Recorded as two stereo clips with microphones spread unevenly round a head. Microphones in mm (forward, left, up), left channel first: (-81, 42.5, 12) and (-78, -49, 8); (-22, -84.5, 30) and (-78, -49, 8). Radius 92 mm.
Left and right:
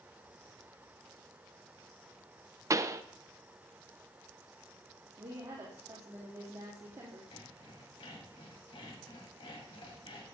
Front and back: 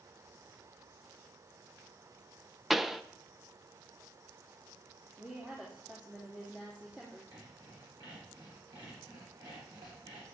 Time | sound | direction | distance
2.7 | a pop | 135° right | 0.7 m
5.2 | a woman speaking | 140° right | 2.5 m
7.3 | sawing | 105° left | 4 m